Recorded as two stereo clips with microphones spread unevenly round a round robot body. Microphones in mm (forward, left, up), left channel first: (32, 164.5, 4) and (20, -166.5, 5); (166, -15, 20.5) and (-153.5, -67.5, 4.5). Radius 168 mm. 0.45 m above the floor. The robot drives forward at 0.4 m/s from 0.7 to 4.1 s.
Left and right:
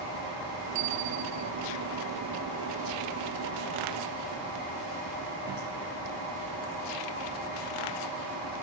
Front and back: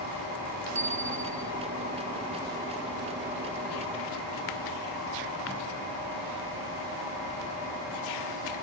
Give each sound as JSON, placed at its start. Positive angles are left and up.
{"t": 0.8, "sound": "a bicycle bell", "azimuth_deg": -100}